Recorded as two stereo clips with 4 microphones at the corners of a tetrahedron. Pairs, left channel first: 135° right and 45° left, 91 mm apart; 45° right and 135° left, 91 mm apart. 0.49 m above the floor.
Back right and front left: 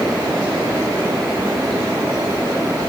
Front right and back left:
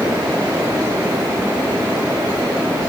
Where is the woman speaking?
No woman speaking in this recording.